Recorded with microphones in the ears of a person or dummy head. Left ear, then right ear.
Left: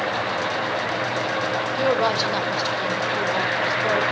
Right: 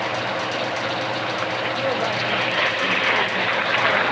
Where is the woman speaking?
25° left (ahead or behind), 1.7 m.